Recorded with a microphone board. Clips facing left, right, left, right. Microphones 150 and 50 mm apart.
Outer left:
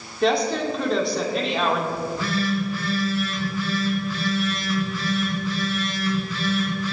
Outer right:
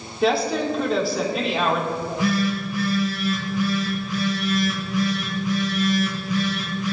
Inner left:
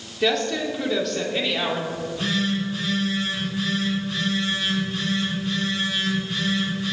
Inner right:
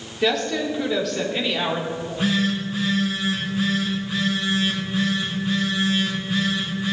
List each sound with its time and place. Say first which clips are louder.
0.2 s a woman speaking: even, inner right 1 dB; 5° right (ahead or behind), 2 m
1.9 s a phone buzzing: outer right 3 dB, inner right 2 dB; 15° right (ahead or behind), 4 m